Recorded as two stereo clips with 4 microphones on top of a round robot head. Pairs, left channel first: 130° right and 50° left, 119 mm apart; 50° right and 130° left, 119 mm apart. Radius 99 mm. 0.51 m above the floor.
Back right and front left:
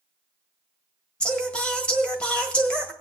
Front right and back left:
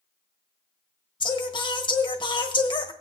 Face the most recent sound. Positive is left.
turn(degrees=-55)